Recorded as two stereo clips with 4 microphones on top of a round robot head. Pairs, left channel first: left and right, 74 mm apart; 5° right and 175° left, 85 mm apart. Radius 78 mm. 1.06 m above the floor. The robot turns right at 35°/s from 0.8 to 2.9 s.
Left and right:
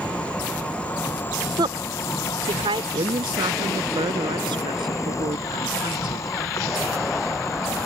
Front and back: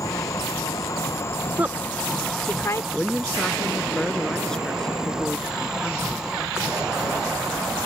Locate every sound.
0.0 s an insect: 20° left; by 7.9 s 95° left
1.6 s a woman speaking: 110° right; by 2.8 s 70° right
2.9 s a woman speaking: 90° right